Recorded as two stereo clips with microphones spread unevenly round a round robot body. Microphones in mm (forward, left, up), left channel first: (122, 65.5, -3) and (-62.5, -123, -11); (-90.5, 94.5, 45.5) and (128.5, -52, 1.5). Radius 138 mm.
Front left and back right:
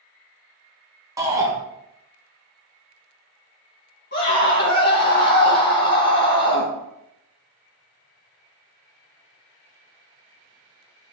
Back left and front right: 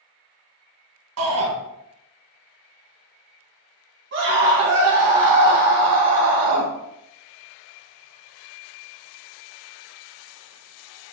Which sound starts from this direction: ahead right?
A shout, at 1.2 s.